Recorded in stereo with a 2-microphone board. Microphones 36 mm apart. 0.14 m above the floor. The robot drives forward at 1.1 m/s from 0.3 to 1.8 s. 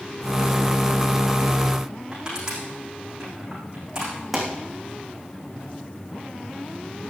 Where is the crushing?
20° right (ahead or behind), 6.5 m.